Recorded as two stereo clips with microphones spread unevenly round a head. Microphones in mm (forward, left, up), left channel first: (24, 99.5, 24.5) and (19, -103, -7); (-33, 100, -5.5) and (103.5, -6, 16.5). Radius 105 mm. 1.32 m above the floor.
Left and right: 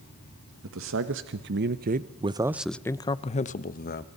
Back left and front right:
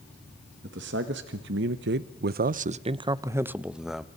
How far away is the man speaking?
About 1.3 m.